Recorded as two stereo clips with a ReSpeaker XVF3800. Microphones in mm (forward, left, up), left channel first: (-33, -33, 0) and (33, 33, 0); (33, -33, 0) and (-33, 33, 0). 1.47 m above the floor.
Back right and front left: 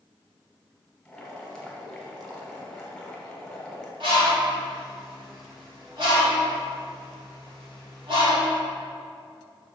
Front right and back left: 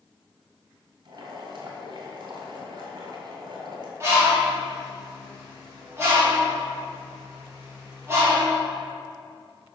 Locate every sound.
1.1 s boiling: 140° left, 2.0 m
4.0 s a bird: 75° left, 2.5 m